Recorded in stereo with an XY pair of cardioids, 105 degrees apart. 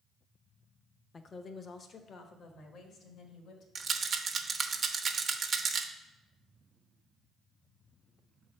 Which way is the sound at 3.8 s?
45° right.